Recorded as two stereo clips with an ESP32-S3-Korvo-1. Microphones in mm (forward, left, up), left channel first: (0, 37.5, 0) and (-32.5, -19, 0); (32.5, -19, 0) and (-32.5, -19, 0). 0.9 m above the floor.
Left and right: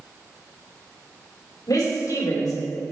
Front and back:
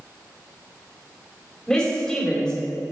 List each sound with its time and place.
1.7 s a woman speaking: 75° left, 3.5 m